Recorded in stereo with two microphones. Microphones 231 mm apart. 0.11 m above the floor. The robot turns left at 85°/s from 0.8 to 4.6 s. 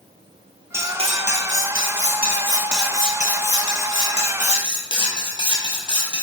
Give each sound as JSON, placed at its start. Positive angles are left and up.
{"t": 0.7, "sound": "cutlery clinking", "azimuth_deg": -15, "distance_m": 1.6}